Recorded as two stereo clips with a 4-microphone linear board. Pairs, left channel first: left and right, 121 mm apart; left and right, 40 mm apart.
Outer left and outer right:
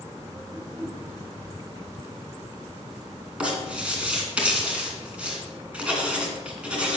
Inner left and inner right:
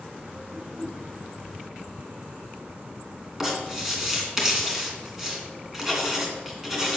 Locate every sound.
0.5 s a whoosh: 5° left (ahead or behind), 4.5 m
3.4 s writing: 10° right (ahead or behind), 2.5 m